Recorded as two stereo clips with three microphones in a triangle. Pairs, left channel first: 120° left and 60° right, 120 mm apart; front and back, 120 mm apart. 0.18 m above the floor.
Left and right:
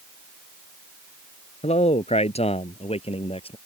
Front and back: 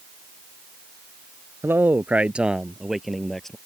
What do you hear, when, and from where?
1.6 s a man speaking: 110° left; by 3.5 s 85° left